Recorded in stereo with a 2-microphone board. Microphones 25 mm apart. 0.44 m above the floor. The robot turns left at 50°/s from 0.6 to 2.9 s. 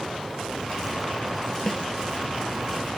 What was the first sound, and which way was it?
A snare drum, 25° left (ahead or behind).